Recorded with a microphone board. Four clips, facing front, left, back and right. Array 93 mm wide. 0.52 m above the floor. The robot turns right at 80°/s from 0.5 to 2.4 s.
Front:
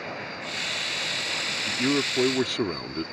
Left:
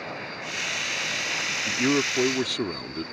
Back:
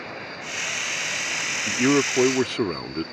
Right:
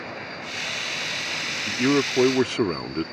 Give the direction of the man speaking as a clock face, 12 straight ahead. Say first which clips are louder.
Right 3 dB, back 6 dB; 6 o'clock.